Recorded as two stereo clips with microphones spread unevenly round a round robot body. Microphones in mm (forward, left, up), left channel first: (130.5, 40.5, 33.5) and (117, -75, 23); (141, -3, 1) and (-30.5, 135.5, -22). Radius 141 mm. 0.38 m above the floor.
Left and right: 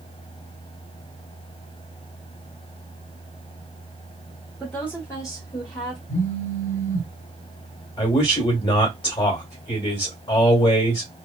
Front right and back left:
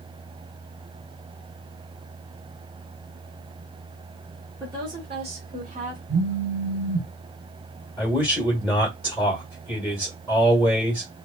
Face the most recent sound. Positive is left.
turn(degrees=55)